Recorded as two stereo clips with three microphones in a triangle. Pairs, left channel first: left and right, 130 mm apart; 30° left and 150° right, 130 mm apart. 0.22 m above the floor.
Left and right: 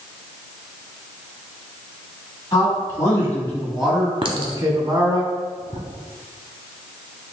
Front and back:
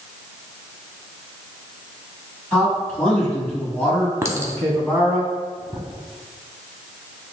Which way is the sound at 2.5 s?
95° left.